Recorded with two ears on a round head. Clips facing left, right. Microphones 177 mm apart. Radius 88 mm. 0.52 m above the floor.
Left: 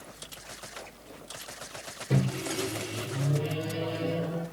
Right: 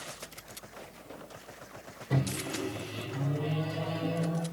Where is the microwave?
40° left (ahead or behind), 1.6 m.